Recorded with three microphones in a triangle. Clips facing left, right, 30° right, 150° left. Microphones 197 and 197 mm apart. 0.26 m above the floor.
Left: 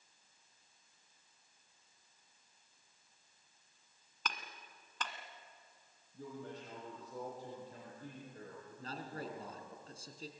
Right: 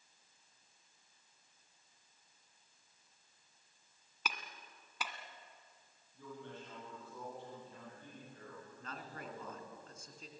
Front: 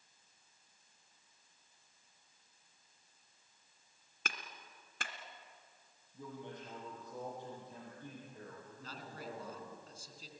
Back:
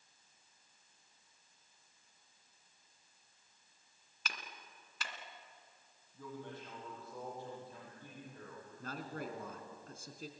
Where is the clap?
10° right, 1.9 m.